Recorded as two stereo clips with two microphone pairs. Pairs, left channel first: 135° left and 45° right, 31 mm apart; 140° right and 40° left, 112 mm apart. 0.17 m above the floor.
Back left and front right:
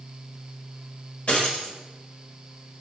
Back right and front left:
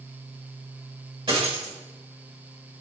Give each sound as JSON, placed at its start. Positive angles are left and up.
{"t": 1.3, "sound": "a dropped coin", "azimuth_deg": 85, "distance_m": 1.4}